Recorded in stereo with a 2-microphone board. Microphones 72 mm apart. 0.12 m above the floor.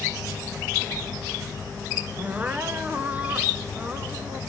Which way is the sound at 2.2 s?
20° right (ahead or behind).